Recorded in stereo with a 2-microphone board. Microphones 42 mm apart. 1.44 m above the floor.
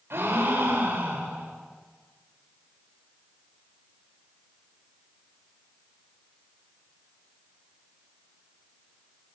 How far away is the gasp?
About 7 m.